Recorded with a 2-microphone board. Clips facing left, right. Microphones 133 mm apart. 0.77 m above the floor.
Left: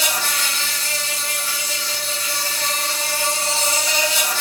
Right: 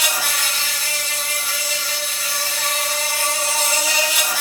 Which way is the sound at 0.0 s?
5° right (ahead or behind).